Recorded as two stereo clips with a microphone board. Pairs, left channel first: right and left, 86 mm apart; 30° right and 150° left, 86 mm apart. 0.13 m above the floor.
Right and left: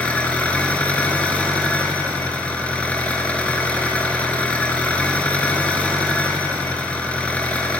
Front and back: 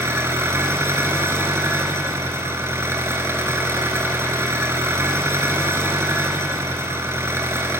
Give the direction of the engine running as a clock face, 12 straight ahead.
5 o'clock.